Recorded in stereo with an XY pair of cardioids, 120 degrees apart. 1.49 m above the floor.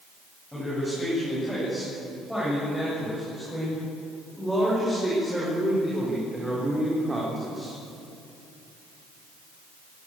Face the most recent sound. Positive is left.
turn(degrees=-20)